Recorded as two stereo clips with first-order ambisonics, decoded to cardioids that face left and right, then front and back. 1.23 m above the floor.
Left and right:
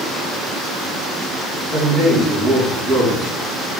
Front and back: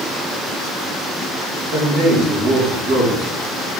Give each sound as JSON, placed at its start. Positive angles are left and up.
{"t": 1.7, "sound": "a man speaking", "azimuth_deg": -170, "distance_m": 2.0}